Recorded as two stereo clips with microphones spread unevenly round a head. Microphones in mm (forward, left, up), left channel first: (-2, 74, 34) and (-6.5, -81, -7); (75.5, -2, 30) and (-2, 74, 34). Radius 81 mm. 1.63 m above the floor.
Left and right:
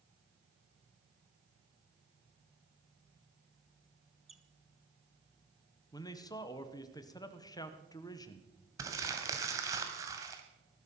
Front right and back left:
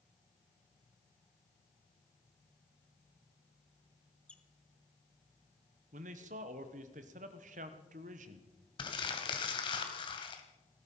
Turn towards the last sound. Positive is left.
turn(degrees=-10)